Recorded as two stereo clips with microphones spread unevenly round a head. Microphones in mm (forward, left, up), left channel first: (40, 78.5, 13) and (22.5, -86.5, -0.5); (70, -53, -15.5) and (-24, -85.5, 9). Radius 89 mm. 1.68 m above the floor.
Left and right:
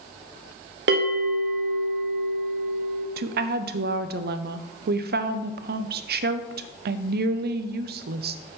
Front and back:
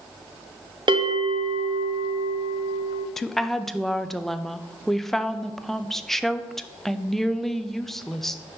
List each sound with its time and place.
0.9 s a bell: 130° right, 1.0 m
3.2 s a woman speaking: 70° right, 0.6 m